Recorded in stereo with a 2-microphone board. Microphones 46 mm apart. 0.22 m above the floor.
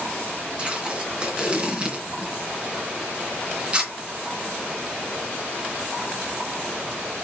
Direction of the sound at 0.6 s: 25° right (ahead or behind).